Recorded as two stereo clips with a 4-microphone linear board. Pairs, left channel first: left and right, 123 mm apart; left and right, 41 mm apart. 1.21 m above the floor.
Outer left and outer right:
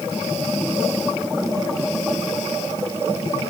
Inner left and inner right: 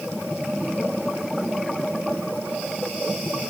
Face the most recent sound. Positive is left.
No sound to turn to.